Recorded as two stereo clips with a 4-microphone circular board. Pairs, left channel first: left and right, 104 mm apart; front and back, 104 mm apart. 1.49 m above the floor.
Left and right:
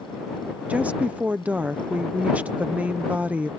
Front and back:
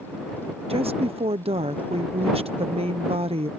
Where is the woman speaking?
165° right.